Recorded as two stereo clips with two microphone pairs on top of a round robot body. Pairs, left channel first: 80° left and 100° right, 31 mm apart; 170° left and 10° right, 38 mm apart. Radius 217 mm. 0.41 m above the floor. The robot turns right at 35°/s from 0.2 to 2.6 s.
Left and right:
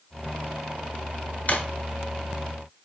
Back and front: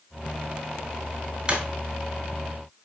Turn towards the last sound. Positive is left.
turn(degrees=95)